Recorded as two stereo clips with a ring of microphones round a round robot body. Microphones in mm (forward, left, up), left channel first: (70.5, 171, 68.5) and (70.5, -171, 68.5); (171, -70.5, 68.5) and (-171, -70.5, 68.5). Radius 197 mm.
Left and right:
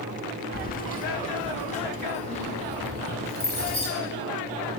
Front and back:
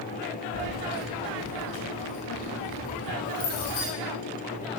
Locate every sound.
0.5 s keys jangling: 25° left, 0.9 m; by 3.9 s 15° left, 3.5 m